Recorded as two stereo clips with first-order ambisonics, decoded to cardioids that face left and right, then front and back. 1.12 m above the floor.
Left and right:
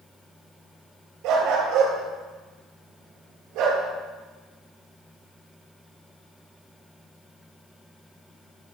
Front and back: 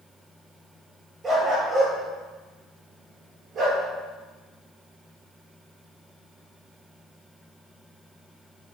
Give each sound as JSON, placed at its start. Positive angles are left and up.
{"t": 1.2, "sound": "a dog barking", "azimuth_deg": -110, "distance_m": 8.0}